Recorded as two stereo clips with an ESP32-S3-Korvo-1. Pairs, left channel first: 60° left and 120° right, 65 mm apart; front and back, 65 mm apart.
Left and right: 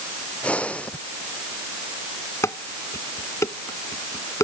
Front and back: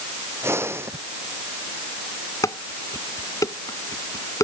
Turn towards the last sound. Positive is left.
turn(degrees=25)